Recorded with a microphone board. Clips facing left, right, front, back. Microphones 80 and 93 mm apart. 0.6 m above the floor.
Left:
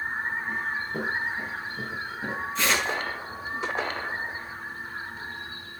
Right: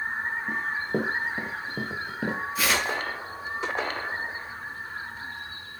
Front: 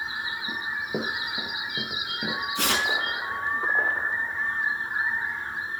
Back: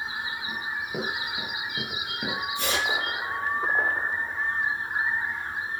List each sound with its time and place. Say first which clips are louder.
0.5 s running footsteps: right 2 dB, front 4 dB; 60° right, 5 m; by 2.4 s 90° right, 5 m
2.5 s tearing paper: left 1 dB, front 1 dB; 5° right, 5.5 m